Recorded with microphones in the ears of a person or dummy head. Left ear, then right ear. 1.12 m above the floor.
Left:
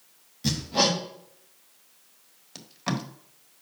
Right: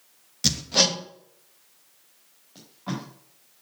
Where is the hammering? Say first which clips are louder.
Right 3 dB; 50° right (ahead or behind), 1.1 m.